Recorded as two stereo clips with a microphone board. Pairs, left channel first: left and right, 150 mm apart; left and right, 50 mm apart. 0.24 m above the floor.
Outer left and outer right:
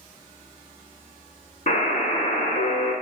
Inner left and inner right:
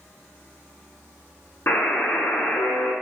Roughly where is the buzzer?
Left.